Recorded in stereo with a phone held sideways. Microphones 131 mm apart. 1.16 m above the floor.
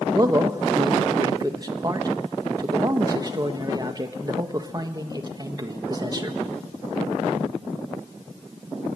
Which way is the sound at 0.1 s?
30° right (ahead or behind).